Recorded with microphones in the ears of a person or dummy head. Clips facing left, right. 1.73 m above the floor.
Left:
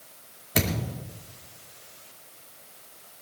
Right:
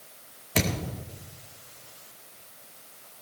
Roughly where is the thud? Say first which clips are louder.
Even; centre.